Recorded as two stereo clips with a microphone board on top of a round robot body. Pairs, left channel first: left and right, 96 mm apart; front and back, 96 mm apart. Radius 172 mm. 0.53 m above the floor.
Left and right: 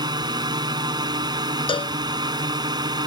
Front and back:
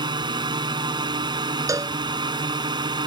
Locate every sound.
0.0 s a drone: 135° right
1.7 s a cowbell: 120° left